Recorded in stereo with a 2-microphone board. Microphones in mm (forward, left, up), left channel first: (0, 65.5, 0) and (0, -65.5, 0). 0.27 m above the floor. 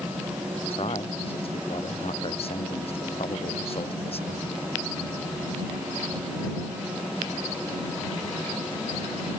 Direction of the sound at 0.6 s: 45° left (ahead or behind).